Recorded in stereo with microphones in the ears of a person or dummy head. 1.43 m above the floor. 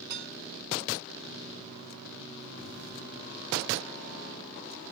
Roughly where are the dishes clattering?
Right.